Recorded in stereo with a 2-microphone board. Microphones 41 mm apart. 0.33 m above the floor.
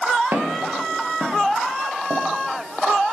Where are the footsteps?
70° right (ahead or behind), 3.5 m; by 3.0 s 30° right (ahead or behind), 1.5 m.